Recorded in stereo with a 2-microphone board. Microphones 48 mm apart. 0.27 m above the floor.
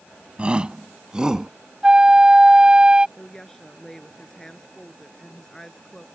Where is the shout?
25° right (ahead or behind); by 1.5 s 15° right (ahead or behind).